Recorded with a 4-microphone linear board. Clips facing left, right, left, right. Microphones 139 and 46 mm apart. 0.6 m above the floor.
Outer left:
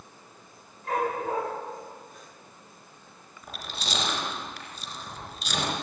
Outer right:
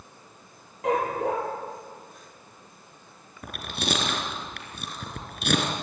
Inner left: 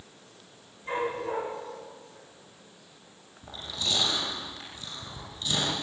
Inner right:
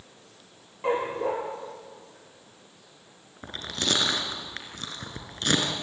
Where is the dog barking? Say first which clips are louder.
Outer right 3 dB, inner right 4 dB; 90° right, 7 m.